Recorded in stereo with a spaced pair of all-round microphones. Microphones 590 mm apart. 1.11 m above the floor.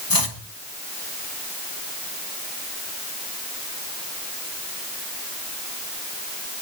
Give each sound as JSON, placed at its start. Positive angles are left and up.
{"t": 0.1, "sound": "chopping", "side_deg": 35, "distance_m": 1.7}